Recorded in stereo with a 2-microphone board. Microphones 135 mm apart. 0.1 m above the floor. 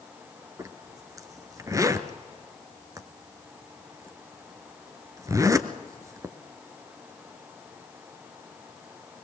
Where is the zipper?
25° right (ahead or behind), 1.0 m.